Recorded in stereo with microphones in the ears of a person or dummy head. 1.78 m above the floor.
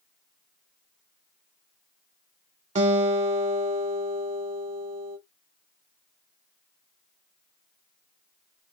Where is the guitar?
35° right (ahead or behind), 1.1 m.